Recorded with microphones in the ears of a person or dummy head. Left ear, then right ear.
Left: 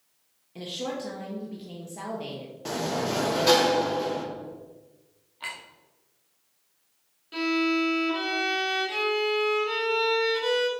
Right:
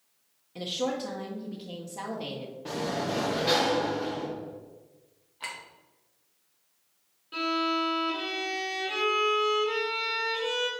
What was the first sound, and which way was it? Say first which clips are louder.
A woman speaking: right 2 dB; 5° right (ahead or behind).